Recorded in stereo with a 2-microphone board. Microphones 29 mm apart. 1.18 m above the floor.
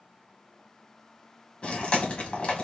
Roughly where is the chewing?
Left.